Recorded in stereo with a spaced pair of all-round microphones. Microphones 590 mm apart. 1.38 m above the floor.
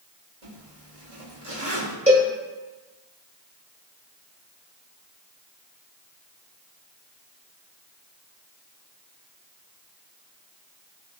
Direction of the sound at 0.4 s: 65° right (ahead or behind).